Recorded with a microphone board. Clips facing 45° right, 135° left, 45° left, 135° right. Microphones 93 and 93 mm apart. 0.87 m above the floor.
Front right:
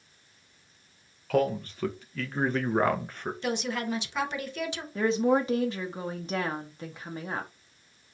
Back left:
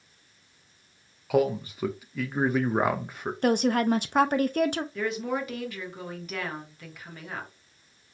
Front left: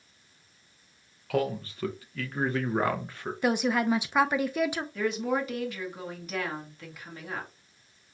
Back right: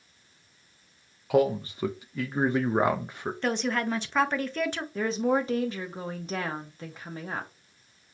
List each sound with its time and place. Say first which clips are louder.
1.3 s a man speaking: back left 2 dB, back right 5 dB; 165° right, 0.6 m
3.4 s a woman speaking: back left 9 dB, front left 3 dB; 125° left, 0.7 m
5.0 s a woman speaking: front right 5 dB, back right 4 dB; 95° right, 1.1 m